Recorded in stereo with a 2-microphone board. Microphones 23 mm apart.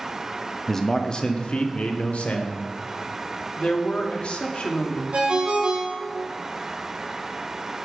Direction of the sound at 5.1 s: 60° right (ahead or behind).